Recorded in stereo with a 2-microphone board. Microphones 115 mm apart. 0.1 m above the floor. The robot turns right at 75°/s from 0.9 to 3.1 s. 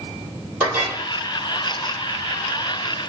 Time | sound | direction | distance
0.6 | a clink | 10° right (ahead or behind) | 2 m